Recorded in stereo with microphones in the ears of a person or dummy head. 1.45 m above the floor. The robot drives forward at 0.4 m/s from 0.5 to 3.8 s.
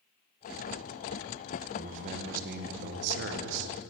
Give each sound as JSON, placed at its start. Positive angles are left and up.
{"t": 1.7, "sound": "a man speaking", "side_deg": -40, "distance_m": 1.0}